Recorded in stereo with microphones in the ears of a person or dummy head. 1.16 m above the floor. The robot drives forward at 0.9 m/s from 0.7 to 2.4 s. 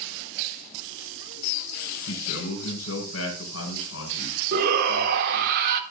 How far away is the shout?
About 2.5 m.